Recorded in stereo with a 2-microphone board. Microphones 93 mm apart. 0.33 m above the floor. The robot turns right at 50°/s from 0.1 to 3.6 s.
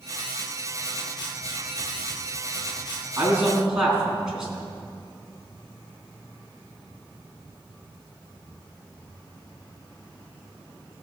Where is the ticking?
I don't hear ticking.